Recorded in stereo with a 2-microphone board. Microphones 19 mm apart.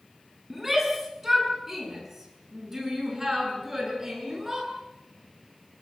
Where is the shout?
10° right (ahead or behind), 7 m; by 4.7 s 20° right (ahead or behind), 9.5 m.